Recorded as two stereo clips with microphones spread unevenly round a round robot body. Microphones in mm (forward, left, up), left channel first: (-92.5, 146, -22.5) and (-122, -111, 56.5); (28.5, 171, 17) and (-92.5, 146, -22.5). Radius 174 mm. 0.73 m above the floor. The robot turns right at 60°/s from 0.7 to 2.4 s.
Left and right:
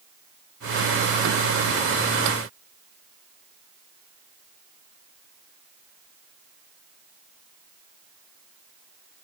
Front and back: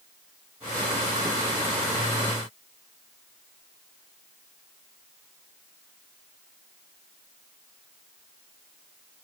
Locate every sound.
Only background noise.